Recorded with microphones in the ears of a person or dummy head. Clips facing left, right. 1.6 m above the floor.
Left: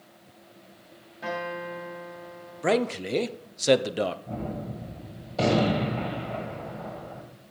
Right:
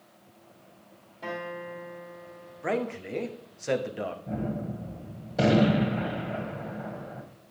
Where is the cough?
I don't hear a cough.